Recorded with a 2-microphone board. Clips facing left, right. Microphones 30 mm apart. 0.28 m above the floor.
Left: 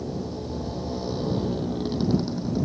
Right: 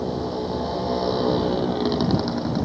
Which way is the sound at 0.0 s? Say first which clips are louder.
Right 6 dB; 45° right (ahead or behind).